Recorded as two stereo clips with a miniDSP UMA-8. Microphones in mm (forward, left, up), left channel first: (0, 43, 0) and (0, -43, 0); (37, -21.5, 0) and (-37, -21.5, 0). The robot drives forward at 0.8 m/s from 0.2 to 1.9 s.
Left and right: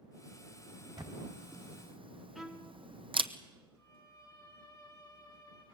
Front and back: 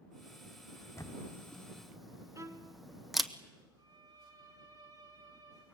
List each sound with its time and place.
1.0 s a camera shutter: 50° right, 1.2 m; by 3.3 s 90° right, 0.9 m
2.4 s a violin: 175° right, 1.8 m
3.8 s a violin: 145° left, 4.5 m